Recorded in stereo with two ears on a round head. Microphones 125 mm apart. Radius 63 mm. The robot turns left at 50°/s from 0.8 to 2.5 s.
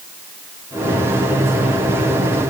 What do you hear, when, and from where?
Only background noise.